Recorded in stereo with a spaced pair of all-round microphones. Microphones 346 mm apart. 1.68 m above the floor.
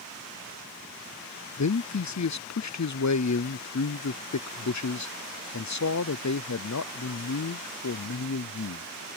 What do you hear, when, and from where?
1.6 s a man speaking: 55° left (ahead or behind)